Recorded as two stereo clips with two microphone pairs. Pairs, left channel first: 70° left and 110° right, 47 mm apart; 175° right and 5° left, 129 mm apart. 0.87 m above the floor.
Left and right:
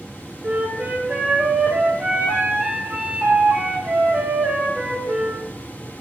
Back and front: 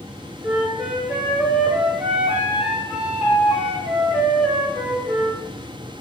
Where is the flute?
70° right, 0.6 m.